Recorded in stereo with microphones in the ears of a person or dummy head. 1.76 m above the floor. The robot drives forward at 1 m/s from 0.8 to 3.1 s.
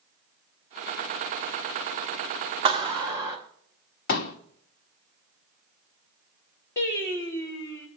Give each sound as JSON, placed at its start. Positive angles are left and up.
{"t": 2.6, "sound": "a clap", "side_deg": -25, "distance_m": 1.4}
{"t": 4.1, "sound": "a pop", "side_deg": 50, "distance_m": 1.1}
{"t": 6.8, "sound": "singing", "side_deg": 20, "distance_m": 3.0}